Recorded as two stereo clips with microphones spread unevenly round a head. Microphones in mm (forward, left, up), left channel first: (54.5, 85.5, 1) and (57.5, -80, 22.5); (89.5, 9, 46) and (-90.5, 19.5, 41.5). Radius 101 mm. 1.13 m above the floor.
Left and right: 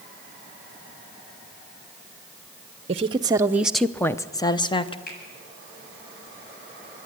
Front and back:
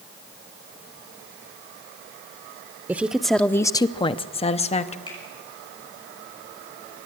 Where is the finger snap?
60° left, 8.5 m.